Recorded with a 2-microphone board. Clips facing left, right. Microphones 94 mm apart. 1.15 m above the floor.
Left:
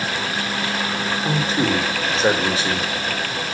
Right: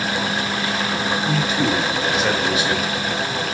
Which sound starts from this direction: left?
A man speaking, at 1.2 s.